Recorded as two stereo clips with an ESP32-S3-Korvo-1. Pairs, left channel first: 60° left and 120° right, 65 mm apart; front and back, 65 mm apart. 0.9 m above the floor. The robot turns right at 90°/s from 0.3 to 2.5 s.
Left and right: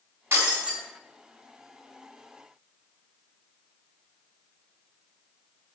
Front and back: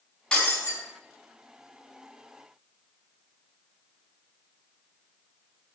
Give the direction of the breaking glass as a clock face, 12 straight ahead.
3 o'clock.